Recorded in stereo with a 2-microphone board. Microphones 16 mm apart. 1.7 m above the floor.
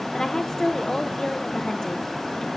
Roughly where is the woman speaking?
Left.